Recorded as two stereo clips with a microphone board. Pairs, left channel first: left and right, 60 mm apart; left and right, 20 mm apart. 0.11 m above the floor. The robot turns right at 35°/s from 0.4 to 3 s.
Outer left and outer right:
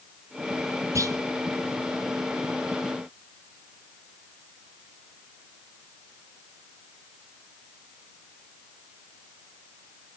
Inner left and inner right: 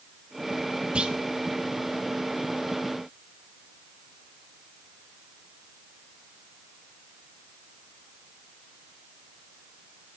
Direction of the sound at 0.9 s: 60° right (ahead or behind).